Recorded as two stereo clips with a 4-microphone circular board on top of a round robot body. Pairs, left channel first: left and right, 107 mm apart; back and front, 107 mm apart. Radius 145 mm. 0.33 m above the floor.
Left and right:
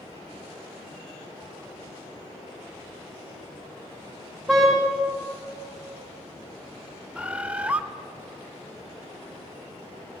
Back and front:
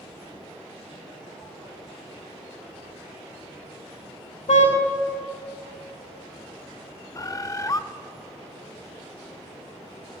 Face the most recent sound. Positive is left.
turn(degrees=-160)